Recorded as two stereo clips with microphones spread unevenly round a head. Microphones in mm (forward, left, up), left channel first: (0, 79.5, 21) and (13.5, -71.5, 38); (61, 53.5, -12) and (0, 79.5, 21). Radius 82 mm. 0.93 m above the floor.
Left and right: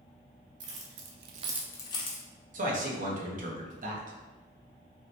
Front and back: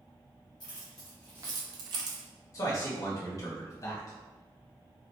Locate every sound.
0.6 s keys jangling: 75° right, 1.3 m; by 2.2 s 150° left, 1.2 m
2.5 s a man speaking: 50° right, 1.1 m